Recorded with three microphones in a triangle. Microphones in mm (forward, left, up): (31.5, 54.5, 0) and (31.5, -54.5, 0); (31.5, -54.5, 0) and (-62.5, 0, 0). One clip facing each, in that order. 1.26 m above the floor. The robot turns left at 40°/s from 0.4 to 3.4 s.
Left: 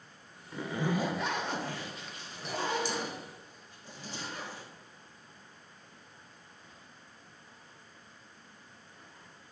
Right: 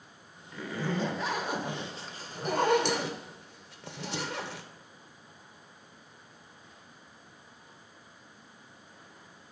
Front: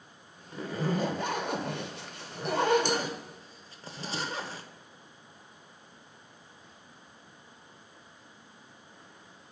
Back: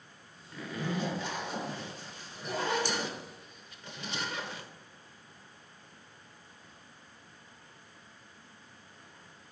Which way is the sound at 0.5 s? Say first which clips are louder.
Left 1 dB, front 4 dB; 30° left.